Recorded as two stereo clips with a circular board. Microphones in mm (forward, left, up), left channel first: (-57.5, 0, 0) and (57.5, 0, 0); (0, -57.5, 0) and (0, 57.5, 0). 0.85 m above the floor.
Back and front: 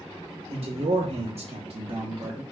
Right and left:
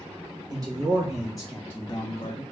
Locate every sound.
0.5 s a man speaking: 30° left, 1.2 m; by 2.4 s 65° right, 0.8 m